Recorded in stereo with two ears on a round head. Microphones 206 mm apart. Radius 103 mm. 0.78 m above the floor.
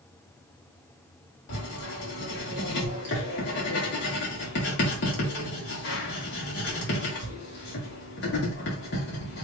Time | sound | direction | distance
1.5 | writing | 50° left (ahead or behind) | 1.9 m